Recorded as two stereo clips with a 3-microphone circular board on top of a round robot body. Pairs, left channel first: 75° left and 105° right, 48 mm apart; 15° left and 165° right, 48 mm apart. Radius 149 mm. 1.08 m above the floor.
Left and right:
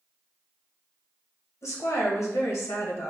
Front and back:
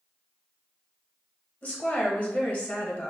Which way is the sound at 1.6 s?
70° left.